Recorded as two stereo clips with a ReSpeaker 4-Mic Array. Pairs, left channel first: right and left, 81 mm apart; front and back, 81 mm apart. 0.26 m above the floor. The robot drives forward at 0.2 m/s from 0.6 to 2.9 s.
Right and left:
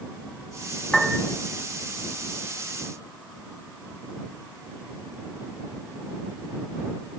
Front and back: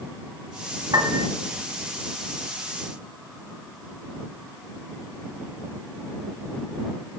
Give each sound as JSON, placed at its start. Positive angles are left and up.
{"t": 0.9, "sound": "a piano", "azimuth_deg": -175, "distance_m": 0.9}